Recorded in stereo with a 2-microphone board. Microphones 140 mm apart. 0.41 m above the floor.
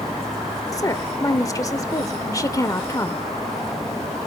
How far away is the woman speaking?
About 1.0 m.